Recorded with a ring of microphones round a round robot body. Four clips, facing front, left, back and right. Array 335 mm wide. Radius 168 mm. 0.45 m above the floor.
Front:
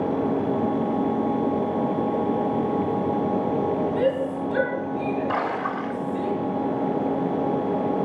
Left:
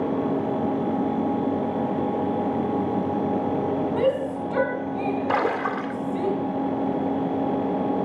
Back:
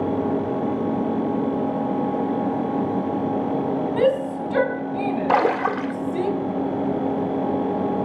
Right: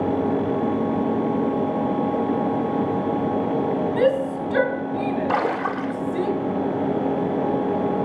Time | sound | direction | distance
4.0 | a shout | 150° right | 4 m
5.3 | a splash | 175° left | 2 m